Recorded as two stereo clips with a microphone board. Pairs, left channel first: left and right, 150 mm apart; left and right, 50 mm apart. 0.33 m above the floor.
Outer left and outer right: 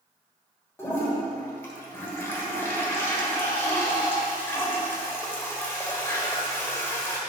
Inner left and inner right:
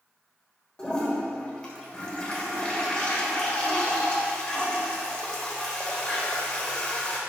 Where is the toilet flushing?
15° left (ahead or behind), 1.2 m.